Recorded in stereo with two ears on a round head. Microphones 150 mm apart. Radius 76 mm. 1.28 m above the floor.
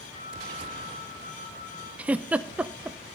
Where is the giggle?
10° right (ahead or behind), 0.6 m.